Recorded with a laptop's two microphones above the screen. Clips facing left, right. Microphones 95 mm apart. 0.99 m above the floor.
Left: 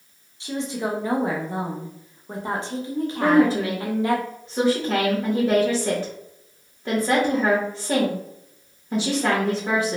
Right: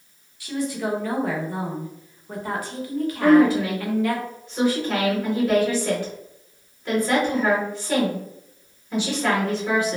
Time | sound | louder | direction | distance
0.4 | a woman speaking | right 1 dB | 25° left (ahead or behind) | 0.6 m
3.2 | a woman speaking | right 2 dB | 35° left (ahead or behind) | 1.2 m